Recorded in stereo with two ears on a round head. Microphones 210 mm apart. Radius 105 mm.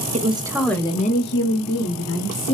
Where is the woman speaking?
30° right (ahead or behind), 0.8 m; by 2.5 s 80° left, 1.4 m.